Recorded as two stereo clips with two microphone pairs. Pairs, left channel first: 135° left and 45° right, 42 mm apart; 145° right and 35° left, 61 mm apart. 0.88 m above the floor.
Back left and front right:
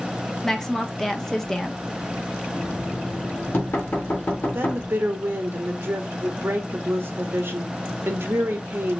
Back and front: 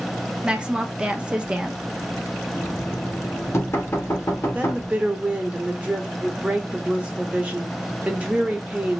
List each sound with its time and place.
0.4 s a woman speaking: 70° left, 0.7 m
2.5 s knocking: 165° left, 1.6 m
4.5 s a woman speaking: 30° right, 1.2 m